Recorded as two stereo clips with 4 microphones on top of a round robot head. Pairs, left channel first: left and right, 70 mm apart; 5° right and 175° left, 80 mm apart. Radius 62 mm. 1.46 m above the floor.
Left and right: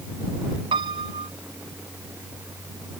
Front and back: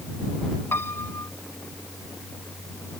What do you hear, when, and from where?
0.7 s a piano: 75° right